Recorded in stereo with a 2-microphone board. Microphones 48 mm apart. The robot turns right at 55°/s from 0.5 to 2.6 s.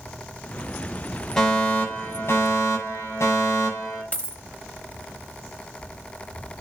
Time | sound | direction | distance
1.4 | a fire alarm | 15° left | 7 m
4.1 | a dropped coin | 35° left (ahead or behind) | 0.7 m